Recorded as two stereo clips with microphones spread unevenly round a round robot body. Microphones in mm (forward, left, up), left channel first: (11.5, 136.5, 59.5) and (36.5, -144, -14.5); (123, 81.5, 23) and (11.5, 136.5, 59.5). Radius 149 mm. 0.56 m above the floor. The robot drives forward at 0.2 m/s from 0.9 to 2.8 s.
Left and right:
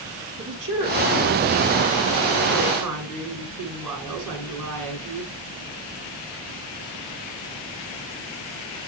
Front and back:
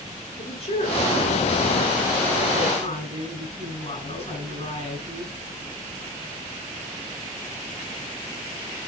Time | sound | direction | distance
0.4 | a woman speaking | 90° right | 6 m